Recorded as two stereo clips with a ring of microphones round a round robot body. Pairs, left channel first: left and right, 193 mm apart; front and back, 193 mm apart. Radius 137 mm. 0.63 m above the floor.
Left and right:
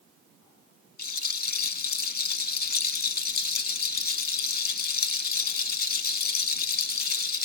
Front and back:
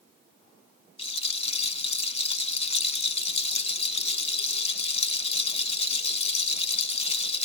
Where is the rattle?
55° left, 0.9 m.